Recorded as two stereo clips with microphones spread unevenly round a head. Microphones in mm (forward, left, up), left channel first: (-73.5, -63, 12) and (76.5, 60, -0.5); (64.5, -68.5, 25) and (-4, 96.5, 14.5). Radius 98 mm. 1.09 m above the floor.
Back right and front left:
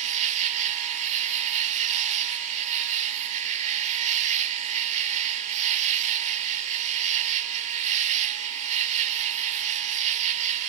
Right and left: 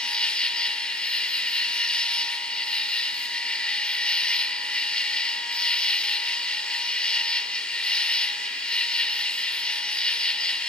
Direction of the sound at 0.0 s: 10° left.